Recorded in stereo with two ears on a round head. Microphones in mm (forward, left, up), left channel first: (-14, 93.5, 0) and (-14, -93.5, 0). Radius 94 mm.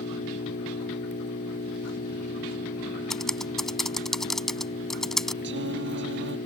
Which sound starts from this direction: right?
Singing, at 5.4 s.